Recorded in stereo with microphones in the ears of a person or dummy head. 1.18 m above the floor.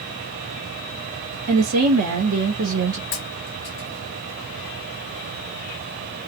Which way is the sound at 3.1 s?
35° left (ahead or behind).